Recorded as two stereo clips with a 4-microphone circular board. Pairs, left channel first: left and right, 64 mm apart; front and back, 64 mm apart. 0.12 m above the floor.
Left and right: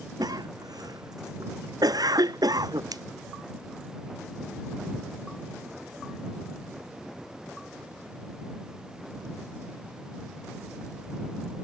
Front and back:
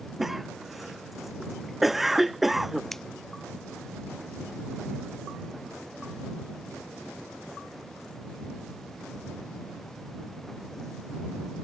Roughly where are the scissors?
Right.